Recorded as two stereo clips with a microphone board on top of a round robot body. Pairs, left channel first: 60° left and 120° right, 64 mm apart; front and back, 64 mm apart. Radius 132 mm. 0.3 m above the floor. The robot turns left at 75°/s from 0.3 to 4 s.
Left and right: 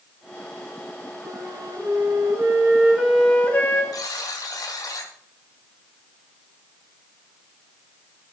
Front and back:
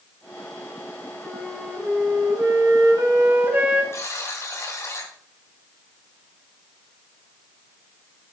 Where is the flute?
65° right, 3.5 m; by 3.8 s 100° left, 3.5 m.